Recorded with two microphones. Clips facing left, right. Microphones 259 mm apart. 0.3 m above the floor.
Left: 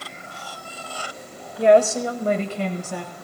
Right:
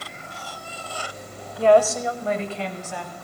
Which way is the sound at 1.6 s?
15° left (ahead or behind).